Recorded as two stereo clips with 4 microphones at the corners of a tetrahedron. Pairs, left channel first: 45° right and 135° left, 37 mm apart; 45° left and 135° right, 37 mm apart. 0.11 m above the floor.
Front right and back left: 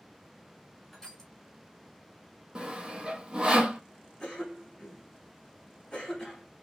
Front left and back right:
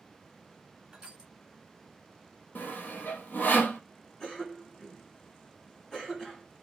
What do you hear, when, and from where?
0.9 s crushing: 120° right, 1.1 m
2.5 s sawing: 70° left, 0.5 m
4.2 s a cough: straight ahead, 1.5 m